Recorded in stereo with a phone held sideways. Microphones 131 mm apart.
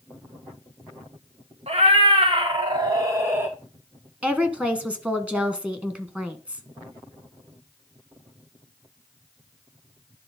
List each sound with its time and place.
1.7 s a cat meowing: 50° right (ahead or behind), 2 m; by 3.5 s 15° right (ahead or behind), 1.7 m
4.2 s a woman speaking: 10° right (ahead or behind), 1.4 m